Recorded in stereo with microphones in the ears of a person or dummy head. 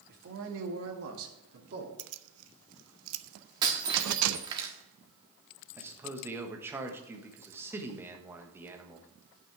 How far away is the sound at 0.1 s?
About 2.0 m.